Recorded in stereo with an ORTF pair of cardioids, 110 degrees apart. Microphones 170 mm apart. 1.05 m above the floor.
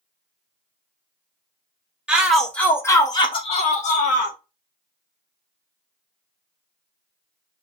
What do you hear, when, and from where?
2.1 s a shout: 5° right, 1.1 m; by 4.4 s 65° left, 1.1 m